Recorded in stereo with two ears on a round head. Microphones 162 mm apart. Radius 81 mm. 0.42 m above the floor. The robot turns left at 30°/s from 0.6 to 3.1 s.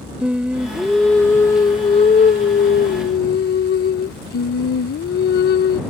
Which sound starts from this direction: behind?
Singing, at 0.2 s.